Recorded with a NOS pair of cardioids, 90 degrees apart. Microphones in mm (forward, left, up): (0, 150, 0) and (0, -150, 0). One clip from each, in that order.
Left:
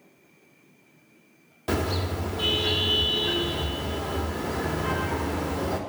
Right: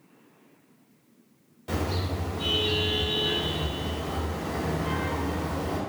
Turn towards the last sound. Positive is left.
turn(degrees=60)